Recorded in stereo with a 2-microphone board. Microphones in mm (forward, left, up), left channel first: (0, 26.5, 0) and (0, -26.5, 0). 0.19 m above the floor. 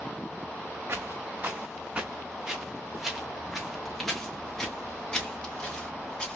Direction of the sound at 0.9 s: 55° right (ahead or behind).